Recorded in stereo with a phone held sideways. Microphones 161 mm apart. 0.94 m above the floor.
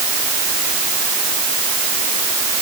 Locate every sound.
Only background noise.